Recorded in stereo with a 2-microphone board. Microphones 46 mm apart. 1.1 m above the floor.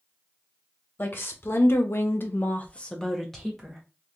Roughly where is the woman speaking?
Left.